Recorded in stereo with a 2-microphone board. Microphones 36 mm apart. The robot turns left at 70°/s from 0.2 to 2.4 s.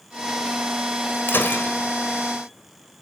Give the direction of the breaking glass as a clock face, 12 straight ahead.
9 o'clock.